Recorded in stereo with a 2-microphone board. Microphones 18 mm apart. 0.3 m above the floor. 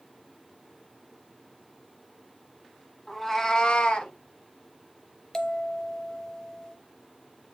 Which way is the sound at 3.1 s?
10° left (ahead or behind).